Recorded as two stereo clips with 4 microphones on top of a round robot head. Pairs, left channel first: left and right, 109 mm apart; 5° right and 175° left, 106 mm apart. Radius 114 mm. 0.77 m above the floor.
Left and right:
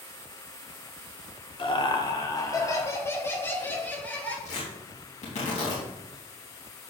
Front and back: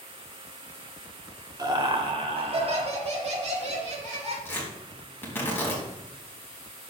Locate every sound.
1.6 s laughter: 125° left, 2.0 m; by 4.3 s 165° left, 4.5 m
4.5 s tearing paper: 65° left, 4 m